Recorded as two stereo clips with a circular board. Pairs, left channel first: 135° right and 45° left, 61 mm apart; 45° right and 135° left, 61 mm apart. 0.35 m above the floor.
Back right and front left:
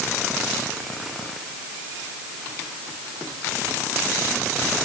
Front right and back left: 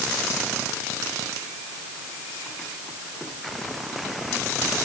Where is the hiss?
I don't hear a hiss.